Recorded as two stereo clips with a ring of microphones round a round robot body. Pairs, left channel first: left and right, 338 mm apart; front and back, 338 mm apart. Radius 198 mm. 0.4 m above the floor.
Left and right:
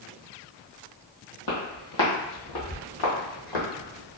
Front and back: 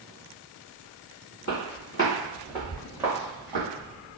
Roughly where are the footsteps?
Ahead left.